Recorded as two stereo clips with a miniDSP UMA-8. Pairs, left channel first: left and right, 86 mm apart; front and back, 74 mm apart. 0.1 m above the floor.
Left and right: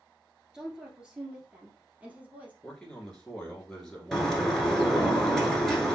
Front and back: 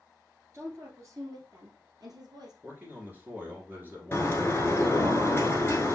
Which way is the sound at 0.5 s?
170° right.